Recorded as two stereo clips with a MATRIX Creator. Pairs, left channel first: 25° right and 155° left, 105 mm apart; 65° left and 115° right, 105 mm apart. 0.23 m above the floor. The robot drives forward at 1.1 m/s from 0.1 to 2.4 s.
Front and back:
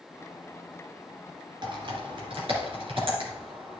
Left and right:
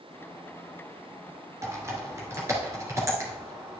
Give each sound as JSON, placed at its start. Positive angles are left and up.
{"t": 1.6, "sound": "typing on a keyboard", "azimuth_deg": -170, "distance_m": 1.3}